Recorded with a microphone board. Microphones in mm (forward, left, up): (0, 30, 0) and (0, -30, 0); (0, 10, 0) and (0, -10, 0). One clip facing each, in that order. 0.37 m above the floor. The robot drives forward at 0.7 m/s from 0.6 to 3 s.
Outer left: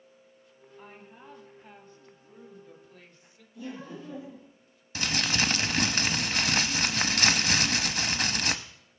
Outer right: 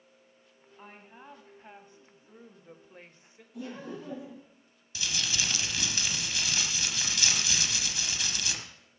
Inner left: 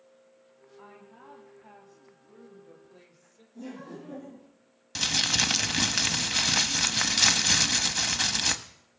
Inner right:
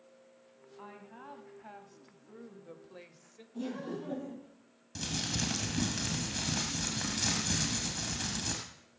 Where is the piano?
No piano in this recording.